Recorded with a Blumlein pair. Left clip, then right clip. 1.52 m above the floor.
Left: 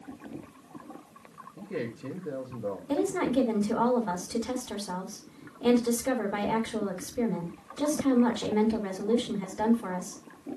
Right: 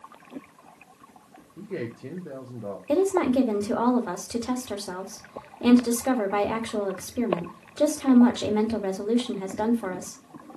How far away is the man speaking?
About 1.5 m.